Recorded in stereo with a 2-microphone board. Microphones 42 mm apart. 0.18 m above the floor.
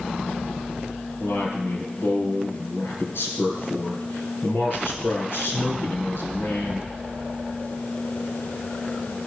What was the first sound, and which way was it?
A man speaking, 65° left (ahead or behind).